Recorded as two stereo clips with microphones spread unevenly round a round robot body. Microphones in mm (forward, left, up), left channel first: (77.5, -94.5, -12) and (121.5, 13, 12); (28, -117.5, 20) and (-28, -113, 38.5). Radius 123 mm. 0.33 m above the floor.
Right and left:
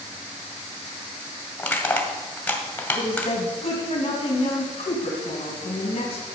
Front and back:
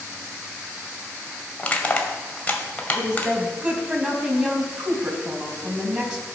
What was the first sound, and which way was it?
Crushing, 50° right.